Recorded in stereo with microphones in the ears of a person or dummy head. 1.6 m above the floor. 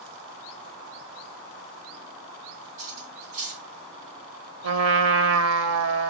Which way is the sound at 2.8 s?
45° right (ahead or behind).